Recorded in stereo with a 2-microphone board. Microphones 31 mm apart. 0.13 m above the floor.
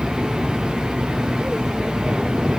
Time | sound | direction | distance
0.0 | an aircraft | 30° right (ahead or behind) | ?